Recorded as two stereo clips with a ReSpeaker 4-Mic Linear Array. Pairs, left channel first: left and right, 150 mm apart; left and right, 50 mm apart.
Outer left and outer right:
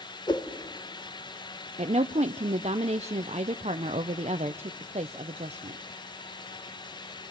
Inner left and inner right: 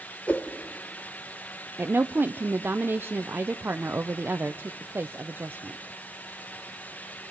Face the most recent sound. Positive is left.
turn(degrees=-50)  # may be behind; listen again after turning